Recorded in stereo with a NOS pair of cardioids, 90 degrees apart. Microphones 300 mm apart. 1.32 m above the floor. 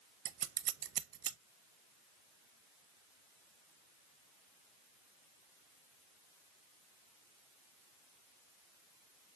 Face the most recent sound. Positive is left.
turn(degrees=-55)